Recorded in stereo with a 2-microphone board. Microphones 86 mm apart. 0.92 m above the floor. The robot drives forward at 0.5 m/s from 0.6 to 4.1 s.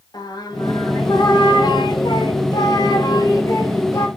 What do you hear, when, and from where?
0.1 s singing: 50° left (ahead or behind), 1.3 m; by 4.1 s 35° left (ahead or behind), 1.8 m